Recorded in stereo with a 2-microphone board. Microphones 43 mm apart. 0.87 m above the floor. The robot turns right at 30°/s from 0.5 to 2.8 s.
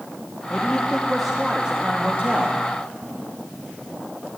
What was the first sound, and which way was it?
A man speaking, 155° left.